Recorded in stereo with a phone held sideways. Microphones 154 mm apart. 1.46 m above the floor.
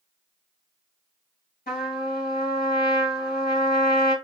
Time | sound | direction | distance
1.7 | a trumpet | 80° left | 4 m